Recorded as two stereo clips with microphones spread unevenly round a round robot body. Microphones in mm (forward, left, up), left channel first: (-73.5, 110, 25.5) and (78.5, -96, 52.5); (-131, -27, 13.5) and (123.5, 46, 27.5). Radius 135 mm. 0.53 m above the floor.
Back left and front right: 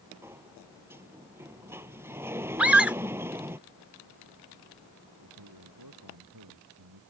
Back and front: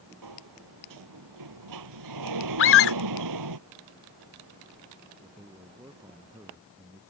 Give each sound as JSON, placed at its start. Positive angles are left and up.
{"t": 0.2, "sound": "a sliding door", "azimuth_deg": 30}
{"t": 2.6, "sound": "a scream", "azimuth_deg": -140}
{"t": 5.2, "sound": "a man speaking", "azimuth_deg": -65}